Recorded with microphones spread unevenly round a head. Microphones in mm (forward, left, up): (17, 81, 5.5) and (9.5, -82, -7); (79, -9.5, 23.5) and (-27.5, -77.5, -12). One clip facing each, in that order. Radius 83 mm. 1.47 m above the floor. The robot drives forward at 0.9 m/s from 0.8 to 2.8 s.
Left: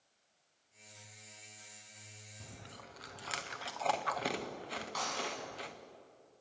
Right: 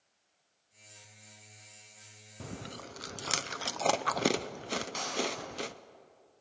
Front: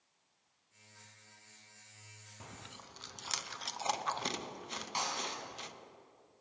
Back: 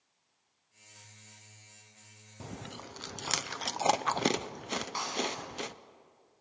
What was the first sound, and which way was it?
Chewing, 100° right.